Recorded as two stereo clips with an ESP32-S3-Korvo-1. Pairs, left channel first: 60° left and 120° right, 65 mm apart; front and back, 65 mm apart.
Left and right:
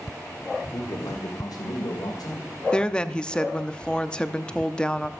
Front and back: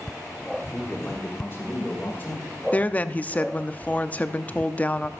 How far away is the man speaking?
About 1.7 m.